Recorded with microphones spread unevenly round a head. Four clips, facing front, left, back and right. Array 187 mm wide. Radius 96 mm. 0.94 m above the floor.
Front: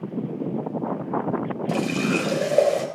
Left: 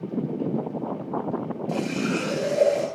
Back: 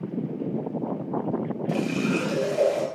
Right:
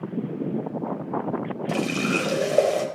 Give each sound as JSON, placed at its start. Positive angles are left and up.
{"t": 1.7, "sound": "a running tap", "azimuth_deg": -50, "distance_m": 3.5}